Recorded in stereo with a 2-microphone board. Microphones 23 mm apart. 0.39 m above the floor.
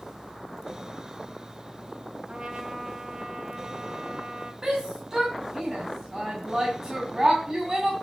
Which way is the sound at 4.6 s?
20° right (ahead or behind).